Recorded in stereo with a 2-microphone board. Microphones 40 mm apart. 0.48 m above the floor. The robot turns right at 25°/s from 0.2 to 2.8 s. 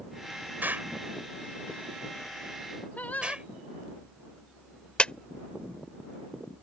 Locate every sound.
0.6 s an explosion: 60° right (ahead or behind); by 3.5 s 30° right (ahead or behind)
3.0 s singing: 50° left (ahead or behind)
5.0 s a clap: 30° left (ahead or behind)